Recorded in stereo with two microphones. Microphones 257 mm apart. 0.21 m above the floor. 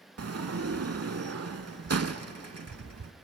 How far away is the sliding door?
About 0.5 m.